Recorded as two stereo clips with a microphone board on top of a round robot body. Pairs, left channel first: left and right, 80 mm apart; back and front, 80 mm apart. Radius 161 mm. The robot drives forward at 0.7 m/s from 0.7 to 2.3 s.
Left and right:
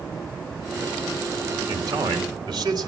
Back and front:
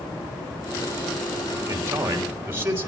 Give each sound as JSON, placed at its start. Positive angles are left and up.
{"t": 1.7, "sound": "a man speaking", "azimuth_deg": -55, "distance_m": 4.0}